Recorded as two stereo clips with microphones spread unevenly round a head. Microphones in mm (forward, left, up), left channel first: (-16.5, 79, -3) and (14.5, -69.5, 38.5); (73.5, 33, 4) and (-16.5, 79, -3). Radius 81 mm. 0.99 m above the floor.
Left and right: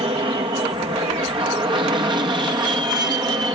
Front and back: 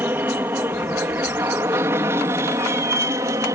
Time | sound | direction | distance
0.0 | an aircraft | 135° right | ?